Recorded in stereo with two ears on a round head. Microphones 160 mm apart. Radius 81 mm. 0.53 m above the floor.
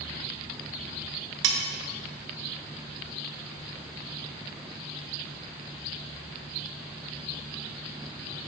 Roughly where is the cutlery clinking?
Right.